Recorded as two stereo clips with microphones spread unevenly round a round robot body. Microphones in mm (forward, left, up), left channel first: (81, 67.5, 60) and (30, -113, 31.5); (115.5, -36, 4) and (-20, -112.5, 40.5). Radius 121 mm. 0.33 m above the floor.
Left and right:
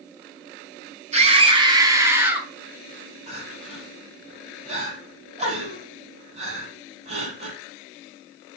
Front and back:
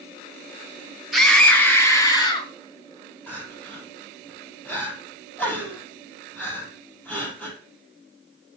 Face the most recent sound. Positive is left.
turn(degrees=-50)